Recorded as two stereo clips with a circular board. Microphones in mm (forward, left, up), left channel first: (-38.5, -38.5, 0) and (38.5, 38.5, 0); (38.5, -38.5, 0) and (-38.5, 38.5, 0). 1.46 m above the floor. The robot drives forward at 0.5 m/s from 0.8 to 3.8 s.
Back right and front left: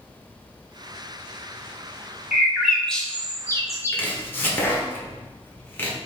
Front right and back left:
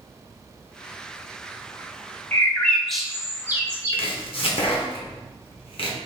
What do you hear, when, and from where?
2.3 s a bird: 10° right, 0.7 m; by 4.0 s 175° right, 0.8 m
3.9 s chopping: 65° right, 1.0 m